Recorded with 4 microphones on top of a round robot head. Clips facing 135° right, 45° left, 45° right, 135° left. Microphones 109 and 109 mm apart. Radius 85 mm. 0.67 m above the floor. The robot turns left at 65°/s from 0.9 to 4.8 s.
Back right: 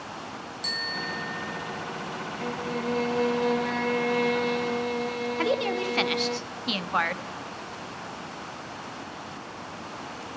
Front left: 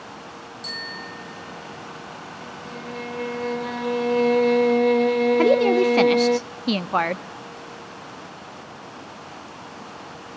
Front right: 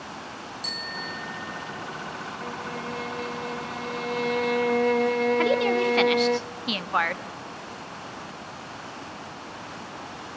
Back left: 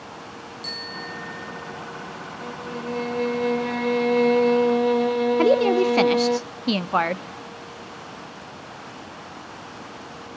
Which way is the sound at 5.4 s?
85° left.